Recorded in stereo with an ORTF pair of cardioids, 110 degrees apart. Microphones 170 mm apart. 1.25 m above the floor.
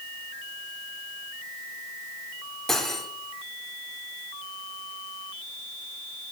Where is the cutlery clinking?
Straight ahead, 1.8 m.